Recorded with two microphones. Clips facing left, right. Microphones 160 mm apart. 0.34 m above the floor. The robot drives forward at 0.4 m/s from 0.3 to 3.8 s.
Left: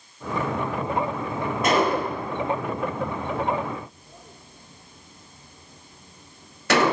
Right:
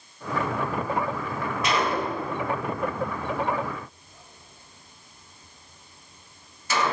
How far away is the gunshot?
About 1.9 m.